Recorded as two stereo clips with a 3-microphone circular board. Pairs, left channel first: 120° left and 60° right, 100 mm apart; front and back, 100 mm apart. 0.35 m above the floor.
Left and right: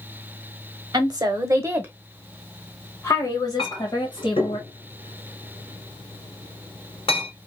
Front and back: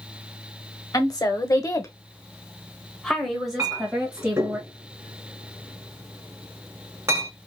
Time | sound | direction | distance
0.9 | a woman speaking | 35° right | 1.2 m
3.6 | a clink | 125° left | 2 m